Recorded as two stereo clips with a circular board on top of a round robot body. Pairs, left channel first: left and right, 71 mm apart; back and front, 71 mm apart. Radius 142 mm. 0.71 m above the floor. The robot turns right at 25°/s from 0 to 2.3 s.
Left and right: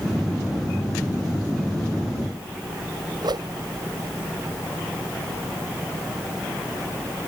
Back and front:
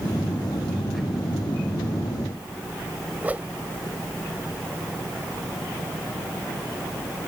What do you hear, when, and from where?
3.2 s a whoosh: 70° right